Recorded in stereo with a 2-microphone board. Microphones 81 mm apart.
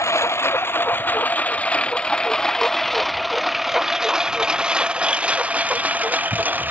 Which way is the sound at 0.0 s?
35° left (ahead or behind).